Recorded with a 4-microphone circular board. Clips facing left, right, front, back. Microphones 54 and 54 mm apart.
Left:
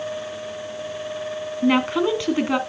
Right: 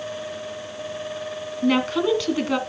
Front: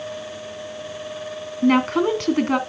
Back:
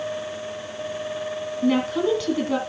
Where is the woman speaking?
30° left, 2 m.